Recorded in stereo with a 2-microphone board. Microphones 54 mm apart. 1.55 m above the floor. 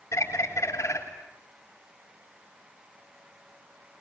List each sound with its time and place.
0.1 s a bird: 60° left (ahead or behind), 7.5 m